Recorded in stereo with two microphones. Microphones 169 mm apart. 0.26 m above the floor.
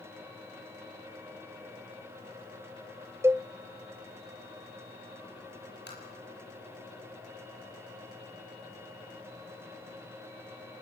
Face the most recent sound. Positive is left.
turn(degrees=75)  # may be behind; listen again after turning